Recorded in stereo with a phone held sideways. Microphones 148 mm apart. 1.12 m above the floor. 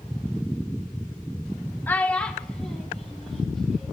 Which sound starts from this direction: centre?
A child speaking, at 1.9 s.